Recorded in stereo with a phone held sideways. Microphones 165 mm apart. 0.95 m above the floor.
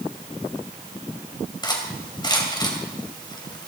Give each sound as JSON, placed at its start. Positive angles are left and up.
{"t": 1.6, "sound": "cutlery clinking", "side_deg": 25, "distance_m": 2.5}